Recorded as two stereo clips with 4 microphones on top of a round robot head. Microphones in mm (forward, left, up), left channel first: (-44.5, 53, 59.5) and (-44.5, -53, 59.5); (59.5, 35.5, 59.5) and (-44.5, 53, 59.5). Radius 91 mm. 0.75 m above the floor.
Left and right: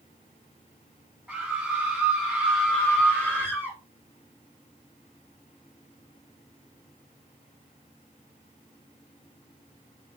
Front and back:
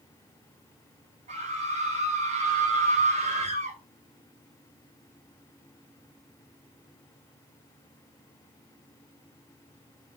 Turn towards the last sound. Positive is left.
turn(degrees=165)